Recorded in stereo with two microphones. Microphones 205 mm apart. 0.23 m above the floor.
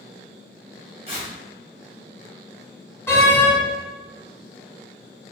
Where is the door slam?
15° left (ahead or behind), 1.5 m.